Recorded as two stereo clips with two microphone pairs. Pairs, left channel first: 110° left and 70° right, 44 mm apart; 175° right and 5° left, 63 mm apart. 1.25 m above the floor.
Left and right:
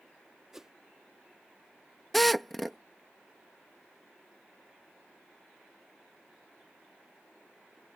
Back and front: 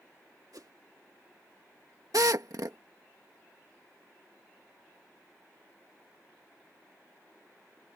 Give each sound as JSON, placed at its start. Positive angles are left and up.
{"t": 0.5, "sound": "a whoosh", "azimuth_deg": 10}
{"t": 2.1, "sound": "a drill", "azimuth_deg": 25}